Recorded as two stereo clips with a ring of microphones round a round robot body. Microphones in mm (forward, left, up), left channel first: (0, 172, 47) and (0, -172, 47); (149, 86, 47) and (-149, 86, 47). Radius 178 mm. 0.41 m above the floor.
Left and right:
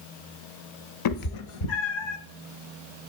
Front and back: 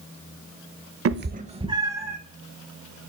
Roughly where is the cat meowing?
Behind left.